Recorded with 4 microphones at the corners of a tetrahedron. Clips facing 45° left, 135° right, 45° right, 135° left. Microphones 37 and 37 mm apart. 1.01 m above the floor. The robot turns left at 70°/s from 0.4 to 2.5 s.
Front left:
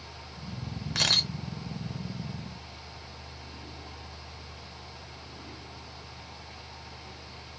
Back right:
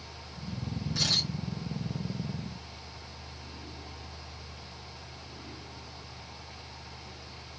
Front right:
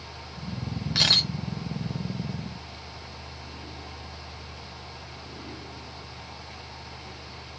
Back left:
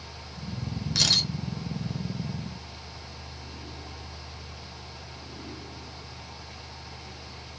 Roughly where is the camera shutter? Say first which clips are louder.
Front left 4 dB, front right 3 dB; ahead.